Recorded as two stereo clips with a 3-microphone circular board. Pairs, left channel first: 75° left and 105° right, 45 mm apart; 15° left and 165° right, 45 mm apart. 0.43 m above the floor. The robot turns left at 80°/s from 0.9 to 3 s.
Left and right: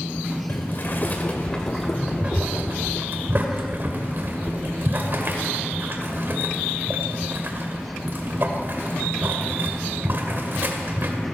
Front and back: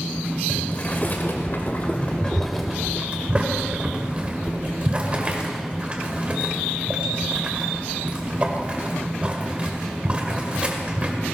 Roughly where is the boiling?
Ahead left.